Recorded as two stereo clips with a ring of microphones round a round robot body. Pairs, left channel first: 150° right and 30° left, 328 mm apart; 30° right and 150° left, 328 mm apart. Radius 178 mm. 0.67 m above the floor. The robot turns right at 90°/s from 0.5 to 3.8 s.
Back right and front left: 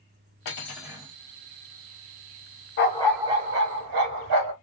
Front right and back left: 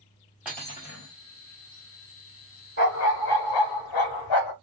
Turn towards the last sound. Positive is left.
turn(degrees=0)